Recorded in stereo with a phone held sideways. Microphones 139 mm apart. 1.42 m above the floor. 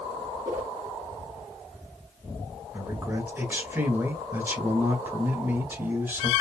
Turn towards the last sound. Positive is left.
turn(degrees=-15)  # may be behind; listen again after turning